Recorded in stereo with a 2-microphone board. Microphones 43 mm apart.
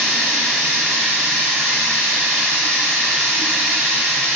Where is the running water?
75° right (ahead or behind), 1.2 m.